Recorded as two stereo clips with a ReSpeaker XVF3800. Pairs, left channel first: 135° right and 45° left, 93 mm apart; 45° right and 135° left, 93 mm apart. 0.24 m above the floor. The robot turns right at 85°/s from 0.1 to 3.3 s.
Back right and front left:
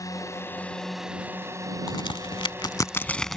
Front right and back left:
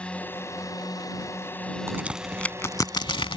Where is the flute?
I don't hear a flute.